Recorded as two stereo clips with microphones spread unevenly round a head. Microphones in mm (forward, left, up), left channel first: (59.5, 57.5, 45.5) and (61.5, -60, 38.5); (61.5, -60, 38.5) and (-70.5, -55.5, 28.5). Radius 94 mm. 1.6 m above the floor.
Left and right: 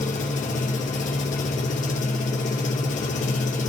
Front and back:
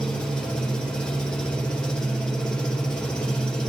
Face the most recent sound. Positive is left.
turn(degrees=80)